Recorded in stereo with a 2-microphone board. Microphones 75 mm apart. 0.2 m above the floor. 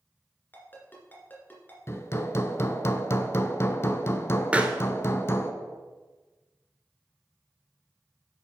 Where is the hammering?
35° left (ahead or behind), 0.7 m.